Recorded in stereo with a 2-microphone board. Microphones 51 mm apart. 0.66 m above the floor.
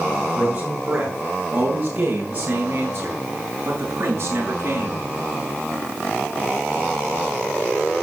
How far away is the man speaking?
About 9.5 m.